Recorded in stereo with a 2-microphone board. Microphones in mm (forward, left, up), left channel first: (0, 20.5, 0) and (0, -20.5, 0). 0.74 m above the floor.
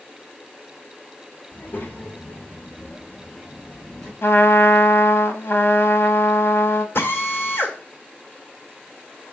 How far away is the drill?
About 1.6 m.